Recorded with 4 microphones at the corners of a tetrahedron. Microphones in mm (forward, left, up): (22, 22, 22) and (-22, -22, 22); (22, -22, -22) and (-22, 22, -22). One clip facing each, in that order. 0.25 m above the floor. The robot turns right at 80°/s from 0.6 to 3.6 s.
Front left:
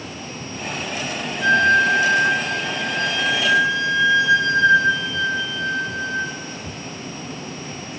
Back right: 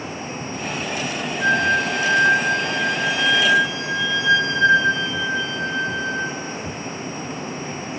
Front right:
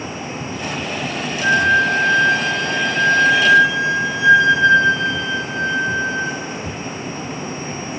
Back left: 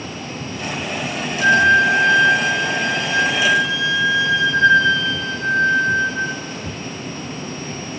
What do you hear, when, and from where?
1.4 s a flute: 165° left, 1.8 m; by 6.4 s 20° right, 1.8 m